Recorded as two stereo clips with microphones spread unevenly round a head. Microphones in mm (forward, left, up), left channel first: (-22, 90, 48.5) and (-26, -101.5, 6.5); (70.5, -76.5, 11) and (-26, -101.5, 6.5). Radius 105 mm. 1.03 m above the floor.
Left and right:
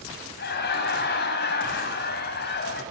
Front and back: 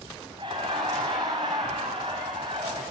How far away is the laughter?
About 7.5 m.